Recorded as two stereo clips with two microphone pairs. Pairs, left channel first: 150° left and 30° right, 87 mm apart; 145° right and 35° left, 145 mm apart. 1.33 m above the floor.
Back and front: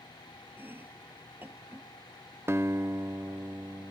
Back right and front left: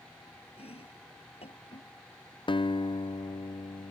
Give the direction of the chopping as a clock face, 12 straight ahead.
3 o'clock.